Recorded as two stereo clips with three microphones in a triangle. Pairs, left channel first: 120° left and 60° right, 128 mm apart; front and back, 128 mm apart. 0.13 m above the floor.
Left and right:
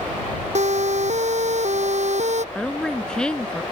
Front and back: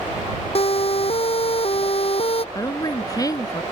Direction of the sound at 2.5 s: 40° left.